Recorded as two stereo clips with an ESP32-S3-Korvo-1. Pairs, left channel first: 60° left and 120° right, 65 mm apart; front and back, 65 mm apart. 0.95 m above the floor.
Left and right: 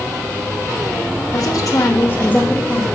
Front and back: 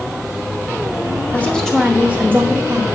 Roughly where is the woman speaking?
Ahead left.